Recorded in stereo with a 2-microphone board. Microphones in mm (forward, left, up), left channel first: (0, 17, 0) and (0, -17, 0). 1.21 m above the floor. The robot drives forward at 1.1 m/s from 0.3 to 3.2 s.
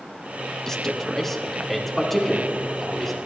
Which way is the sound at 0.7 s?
20° left (ahead or behind).